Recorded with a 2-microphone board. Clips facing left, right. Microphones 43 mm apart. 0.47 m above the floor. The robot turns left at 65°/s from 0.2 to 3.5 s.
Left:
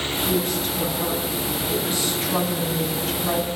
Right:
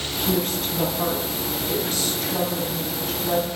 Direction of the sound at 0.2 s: 85° right.